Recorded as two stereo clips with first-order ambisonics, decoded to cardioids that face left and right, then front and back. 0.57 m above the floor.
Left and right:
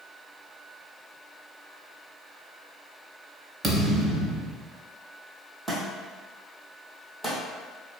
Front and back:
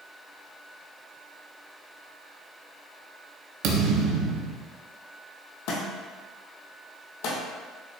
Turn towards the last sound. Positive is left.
turn(degrees=0)